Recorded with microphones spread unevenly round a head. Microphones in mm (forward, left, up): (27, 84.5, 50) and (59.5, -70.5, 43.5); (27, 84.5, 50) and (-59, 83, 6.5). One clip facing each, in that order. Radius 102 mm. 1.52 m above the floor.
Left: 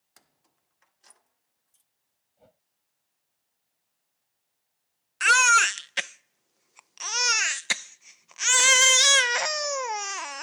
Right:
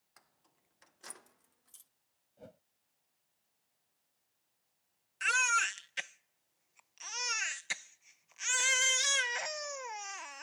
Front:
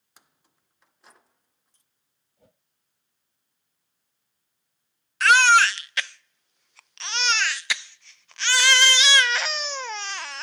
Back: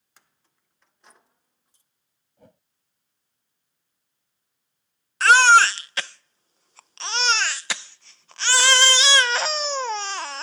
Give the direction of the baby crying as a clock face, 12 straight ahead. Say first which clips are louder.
Left 12 dB, back 3 dB; 8 o'clock.